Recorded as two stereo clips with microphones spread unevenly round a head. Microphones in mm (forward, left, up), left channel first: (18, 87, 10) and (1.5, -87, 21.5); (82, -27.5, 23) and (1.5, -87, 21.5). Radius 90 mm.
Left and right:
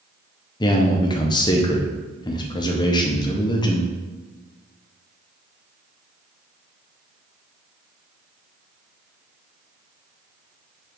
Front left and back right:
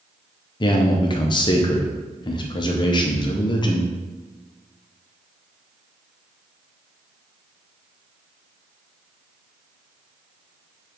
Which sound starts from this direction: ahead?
A man speaking, at 0.6 s.